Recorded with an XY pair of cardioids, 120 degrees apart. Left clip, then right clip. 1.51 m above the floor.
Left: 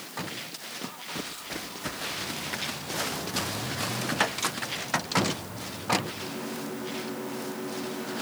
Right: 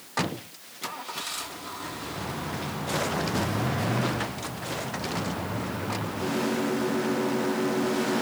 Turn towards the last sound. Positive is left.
No sound to turn to.